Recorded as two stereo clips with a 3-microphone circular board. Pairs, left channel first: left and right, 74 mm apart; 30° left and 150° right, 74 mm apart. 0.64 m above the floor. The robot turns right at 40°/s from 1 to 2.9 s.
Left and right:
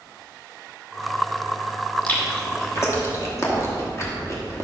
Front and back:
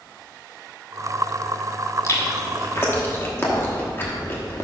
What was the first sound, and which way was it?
Chewing, 35° left.